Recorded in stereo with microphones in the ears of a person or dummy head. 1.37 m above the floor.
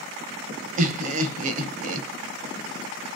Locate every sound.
0.8 s laughter: 50° right (ahead or behind), 0.6 m